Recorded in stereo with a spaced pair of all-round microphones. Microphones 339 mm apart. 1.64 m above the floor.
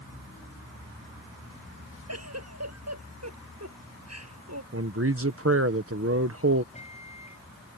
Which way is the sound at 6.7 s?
20° left (ahead or behind).